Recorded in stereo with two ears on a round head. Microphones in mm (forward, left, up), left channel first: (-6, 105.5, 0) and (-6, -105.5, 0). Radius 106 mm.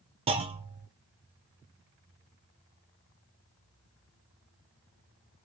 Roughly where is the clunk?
Right.